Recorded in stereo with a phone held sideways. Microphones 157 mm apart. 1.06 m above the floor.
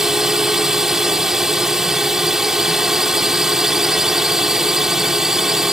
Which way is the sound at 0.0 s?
5° right (ahead or behind).